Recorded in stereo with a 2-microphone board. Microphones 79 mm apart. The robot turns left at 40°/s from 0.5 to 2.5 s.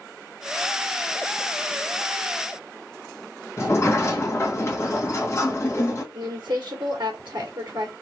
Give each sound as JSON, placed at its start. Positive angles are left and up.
{"t": 3.6, "sound": "a sliding door", "side_deg": 35, "distance_m": 1.4}
{"t": 6.1, "sound": "a woman speaking", "side_deg": -70, "distance_m": 1.5}